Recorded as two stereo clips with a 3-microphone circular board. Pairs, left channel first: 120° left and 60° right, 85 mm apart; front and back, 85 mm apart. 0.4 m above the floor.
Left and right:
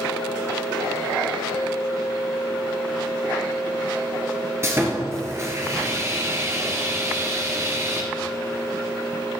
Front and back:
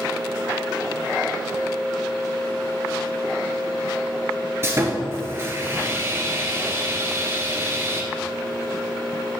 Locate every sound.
4.6 s sawing: 120° right, 1.5 m